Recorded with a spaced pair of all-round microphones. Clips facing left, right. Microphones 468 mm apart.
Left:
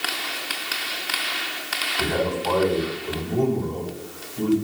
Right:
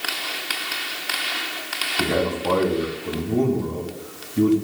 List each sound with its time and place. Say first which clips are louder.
2.0 s a man speaking: right 2 dB; 85° right, 3 m